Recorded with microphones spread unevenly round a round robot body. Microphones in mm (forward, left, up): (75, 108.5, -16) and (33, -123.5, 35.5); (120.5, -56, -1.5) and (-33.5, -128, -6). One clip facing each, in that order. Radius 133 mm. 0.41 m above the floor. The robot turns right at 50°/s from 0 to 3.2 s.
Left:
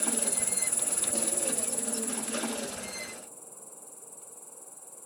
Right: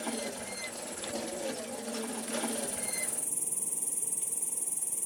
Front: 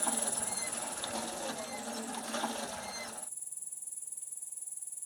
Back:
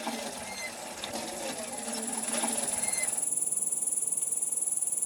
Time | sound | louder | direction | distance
0.0 | an insect | left 1 dB, back 2 dB | 50° left | ?